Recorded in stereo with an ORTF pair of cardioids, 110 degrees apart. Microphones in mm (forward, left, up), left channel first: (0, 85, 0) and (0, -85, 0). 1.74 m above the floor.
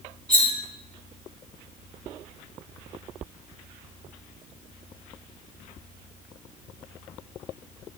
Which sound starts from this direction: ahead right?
Cutlery clinking, at 0.3 s.